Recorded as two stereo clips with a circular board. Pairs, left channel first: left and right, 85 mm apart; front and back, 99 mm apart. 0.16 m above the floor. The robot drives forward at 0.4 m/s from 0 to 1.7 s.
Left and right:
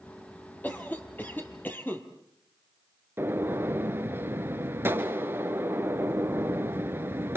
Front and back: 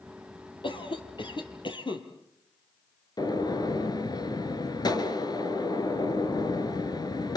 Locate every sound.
0.6 s a cough: 25° left, 4 m
3.2 s a gunshot: 30° right, 1.6 m